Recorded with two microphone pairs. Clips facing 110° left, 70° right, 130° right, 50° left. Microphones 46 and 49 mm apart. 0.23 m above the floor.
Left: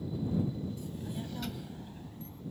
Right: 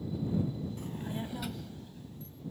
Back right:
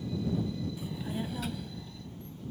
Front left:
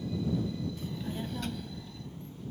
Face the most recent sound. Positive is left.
turn(degrees=135)